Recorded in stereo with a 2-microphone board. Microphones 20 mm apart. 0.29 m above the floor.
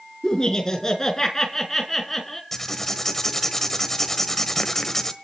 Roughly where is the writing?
Centre.